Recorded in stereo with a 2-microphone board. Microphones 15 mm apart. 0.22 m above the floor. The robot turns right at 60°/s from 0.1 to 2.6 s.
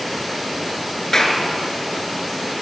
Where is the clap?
35° left (ahead or behind), 3.5 m; by 1.4 s 50° left (ahead or behind), 3.5 m.